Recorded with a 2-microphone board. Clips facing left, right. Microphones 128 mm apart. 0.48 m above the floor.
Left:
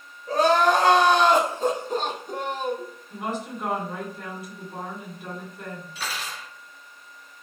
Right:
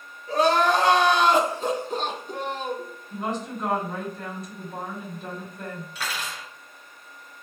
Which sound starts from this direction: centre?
A woman speaking, at 3.1 s.